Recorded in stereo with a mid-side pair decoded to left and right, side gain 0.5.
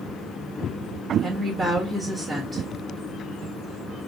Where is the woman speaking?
35° right, 1.7 m.